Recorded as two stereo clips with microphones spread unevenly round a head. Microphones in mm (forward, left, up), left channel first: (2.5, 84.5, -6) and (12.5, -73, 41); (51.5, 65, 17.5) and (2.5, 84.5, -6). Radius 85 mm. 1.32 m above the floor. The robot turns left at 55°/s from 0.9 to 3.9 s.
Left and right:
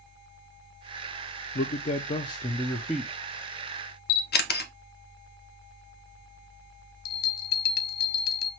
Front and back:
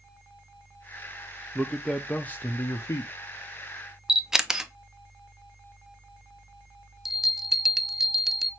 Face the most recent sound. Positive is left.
turn(degrees=80)